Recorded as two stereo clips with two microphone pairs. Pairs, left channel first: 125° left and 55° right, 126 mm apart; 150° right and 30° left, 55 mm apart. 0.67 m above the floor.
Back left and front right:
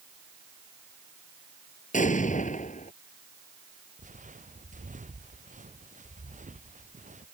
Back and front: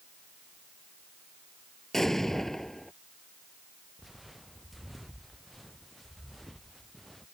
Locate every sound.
1.9 s an explosion: 130° left
4.0 s footsteps: 55° right; by 7.2 s 65° right